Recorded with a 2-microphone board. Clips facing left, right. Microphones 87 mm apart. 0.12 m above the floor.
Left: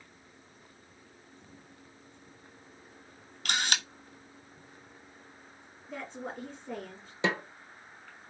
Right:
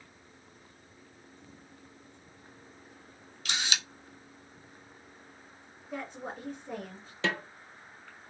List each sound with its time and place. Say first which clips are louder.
3.5 s a camera shutter: left 3 dB; 55° left (ahead or behind), 0.9 m
5.9 s a woman speaking: right 1 dB; 10° right (ahead or behind), 1.6 m
7.2 s a snare drum: left 2 dB; 20° left (ahead or behind), 0.5 m